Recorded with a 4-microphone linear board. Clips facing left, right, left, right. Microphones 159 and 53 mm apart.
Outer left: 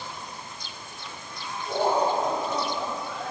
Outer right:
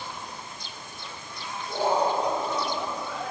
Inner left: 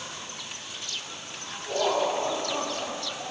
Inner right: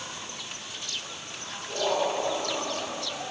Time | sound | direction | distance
1.7 | laughter | 60° left (ahead or behind) | 2.5 m